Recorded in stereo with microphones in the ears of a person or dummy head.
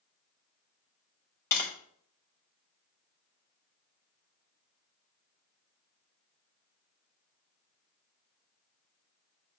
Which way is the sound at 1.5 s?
10° left (ahead or behind).